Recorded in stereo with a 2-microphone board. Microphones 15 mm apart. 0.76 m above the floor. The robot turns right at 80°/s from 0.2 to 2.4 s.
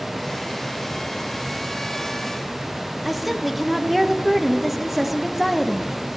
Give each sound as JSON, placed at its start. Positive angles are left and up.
{"t": 3.0, "sound": "a woman speaking", "side_deg": -10, "distance_m": 1.2}